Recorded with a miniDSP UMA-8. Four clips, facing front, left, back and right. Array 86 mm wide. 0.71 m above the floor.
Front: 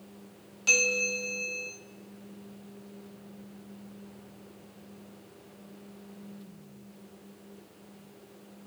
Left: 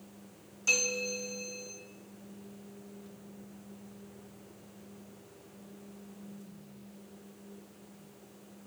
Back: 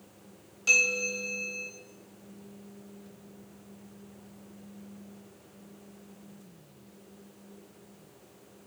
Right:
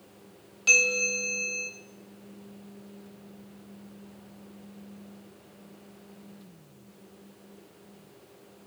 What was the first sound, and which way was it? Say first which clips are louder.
A bell: right 6 dB, front 1 dB; 70° right.